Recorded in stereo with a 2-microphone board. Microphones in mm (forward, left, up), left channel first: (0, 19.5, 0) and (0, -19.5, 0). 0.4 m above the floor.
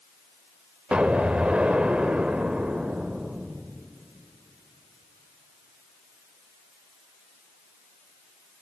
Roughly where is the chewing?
I don't hear chewing.